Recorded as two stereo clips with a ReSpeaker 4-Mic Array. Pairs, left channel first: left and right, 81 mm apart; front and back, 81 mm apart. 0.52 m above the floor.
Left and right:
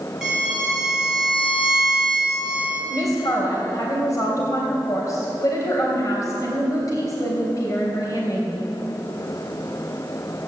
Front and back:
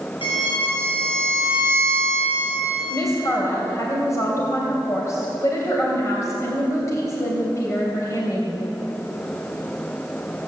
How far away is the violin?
About 5.5 m.